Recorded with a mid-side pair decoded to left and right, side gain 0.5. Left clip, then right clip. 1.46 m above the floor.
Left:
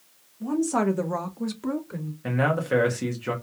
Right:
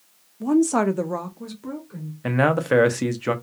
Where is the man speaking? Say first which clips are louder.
Right 5 dB; 40° right, 0.8 m.